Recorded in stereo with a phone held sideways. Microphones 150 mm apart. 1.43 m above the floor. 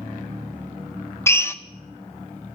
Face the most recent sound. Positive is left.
turn(degrees=15)  # may be behind; listen again after turning